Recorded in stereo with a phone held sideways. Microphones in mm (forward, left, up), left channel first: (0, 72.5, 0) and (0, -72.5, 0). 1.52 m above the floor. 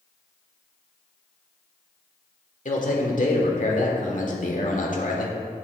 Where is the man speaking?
65° left (ahead or behind), 1.4 m.